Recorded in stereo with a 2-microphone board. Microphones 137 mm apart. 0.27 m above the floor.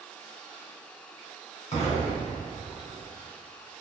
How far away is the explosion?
About 1.7 m.